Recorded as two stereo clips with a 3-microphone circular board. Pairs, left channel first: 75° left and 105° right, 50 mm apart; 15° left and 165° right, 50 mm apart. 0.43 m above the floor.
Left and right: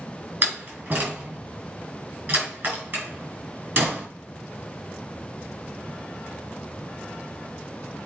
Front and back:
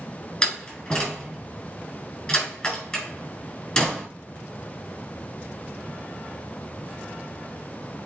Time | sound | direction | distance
0.4 | a door slam | 60° right | 3.5 m